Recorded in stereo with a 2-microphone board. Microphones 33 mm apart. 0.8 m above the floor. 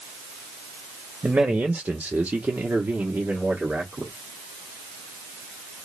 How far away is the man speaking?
About 0.8 m.